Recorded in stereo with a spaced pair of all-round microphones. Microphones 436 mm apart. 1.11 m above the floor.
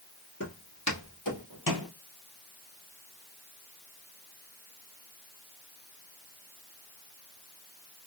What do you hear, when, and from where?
0.4 s footsteps: 35° left (ahead or behind), 1.7 m; by 1.9 s 55° left (ahead or behind), 1.8 m